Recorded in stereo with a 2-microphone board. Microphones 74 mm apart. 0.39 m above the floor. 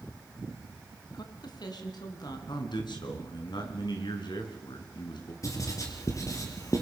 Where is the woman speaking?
65° left (ahead or behind), 3.5 m.